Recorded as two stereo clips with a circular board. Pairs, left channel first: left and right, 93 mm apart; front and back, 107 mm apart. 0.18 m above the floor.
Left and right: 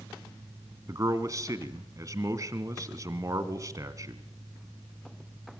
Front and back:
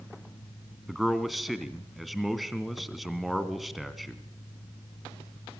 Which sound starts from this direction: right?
A man speaking, at 0.9 s.